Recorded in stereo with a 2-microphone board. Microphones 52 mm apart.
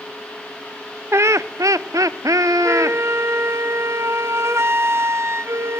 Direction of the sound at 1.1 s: 55° right (ahead or behind).